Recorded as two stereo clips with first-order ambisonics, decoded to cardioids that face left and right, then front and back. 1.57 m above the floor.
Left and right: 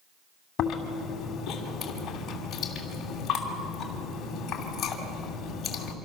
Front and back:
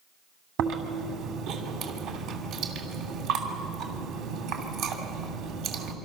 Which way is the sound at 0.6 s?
145° left.